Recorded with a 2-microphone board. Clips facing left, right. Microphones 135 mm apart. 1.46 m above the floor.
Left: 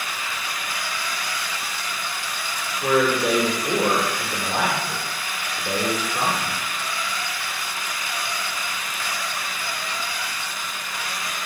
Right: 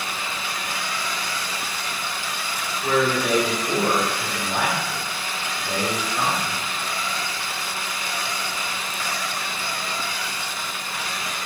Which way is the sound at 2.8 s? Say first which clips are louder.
Left 2 dB; 55° left (ahead or behind).